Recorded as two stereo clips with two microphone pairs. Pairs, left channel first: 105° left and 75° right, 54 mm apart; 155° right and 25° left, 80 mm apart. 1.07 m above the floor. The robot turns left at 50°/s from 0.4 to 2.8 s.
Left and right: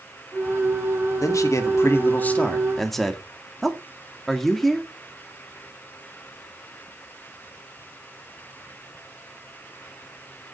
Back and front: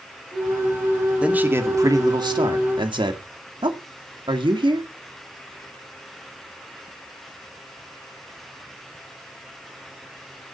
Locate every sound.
1.2 s a man speaking: 100° left, 2 m; by 4.9 s 20° left, 2 m